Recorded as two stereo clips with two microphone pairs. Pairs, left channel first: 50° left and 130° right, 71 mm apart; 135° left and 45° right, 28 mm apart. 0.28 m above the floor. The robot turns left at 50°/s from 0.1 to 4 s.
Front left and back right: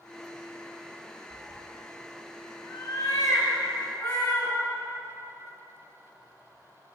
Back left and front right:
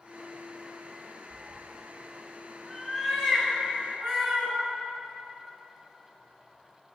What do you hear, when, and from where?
1.3 s a cat meowing: 120° left, 1.7 m; by 4.6 s 15° right, 1.7 m